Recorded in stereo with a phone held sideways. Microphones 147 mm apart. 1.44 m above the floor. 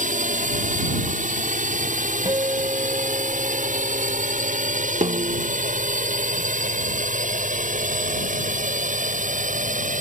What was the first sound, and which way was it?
A drone, 60° right (ahead or behind).